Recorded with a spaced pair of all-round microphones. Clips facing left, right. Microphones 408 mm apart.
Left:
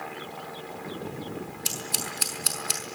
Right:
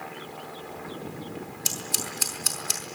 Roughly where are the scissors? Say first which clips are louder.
Even; right.